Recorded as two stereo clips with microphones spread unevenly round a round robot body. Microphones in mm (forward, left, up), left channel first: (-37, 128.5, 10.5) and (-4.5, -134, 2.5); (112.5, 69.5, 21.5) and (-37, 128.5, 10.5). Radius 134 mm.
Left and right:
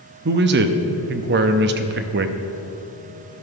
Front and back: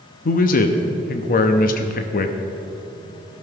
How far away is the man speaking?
About 0.7 m.